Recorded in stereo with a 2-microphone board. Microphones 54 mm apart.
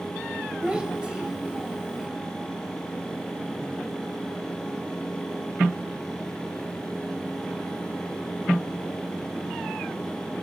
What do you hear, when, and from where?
0.6 s a child speaking: 20° right (ahead or behind), 0.7 m